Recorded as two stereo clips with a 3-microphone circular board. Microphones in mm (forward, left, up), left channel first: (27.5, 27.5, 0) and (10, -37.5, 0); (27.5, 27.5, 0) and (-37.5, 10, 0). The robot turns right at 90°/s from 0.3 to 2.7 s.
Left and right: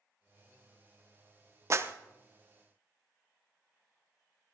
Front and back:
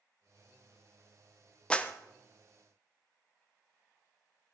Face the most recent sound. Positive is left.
turn(degrees=30)